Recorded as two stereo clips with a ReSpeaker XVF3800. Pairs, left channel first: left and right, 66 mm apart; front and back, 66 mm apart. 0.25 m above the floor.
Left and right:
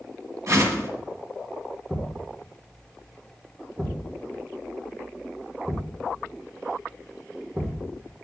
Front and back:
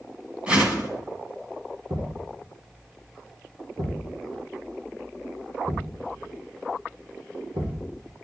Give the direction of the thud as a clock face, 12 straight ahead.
6 o'clock.